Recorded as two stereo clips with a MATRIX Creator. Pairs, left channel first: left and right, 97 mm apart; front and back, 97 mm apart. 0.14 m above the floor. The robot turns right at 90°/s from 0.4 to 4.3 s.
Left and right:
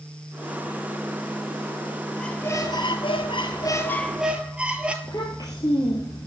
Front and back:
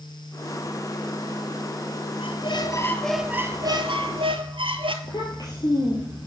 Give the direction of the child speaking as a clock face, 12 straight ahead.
10 o'clock.